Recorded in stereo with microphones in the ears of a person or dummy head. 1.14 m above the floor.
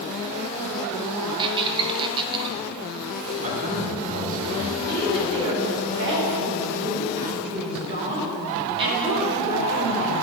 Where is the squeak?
20° right (ahead or behind), 0.8 m.